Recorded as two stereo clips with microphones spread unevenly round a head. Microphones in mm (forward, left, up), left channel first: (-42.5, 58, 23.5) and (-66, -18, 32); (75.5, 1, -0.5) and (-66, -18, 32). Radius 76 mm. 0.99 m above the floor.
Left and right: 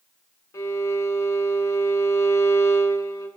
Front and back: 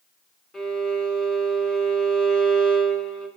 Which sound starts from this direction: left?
A violin, at 0.5 s.